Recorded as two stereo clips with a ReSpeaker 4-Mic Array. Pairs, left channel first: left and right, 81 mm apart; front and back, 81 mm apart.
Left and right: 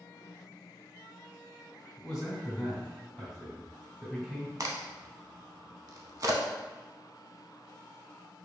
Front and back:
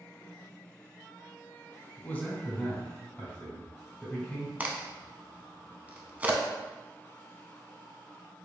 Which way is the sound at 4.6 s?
115° right.